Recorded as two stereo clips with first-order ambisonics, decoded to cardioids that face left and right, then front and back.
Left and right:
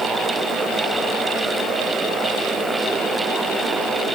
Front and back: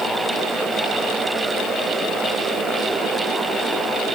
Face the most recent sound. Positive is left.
No sound to turn to.